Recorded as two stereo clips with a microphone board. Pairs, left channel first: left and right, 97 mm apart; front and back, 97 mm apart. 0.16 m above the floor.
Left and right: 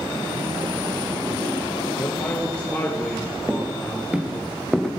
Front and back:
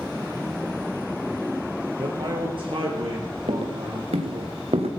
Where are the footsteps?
160° right, 3 m; by 4.9 s straight behind, 2.5 m.